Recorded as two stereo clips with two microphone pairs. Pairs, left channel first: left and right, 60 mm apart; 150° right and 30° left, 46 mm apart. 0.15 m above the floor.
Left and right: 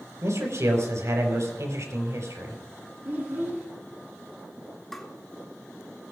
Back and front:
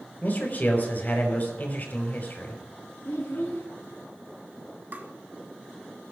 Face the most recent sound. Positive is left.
turn(degrees=10)